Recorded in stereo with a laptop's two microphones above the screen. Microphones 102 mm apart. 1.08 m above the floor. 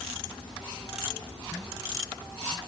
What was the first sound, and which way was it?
Only background noise.